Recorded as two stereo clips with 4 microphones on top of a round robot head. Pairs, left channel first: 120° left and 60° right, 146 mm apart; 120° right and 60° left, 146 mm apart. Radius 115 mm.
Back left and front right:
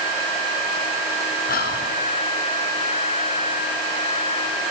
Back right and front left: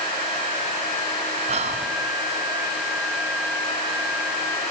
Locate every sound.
1.5 s whispering: 105° left, 4.5 m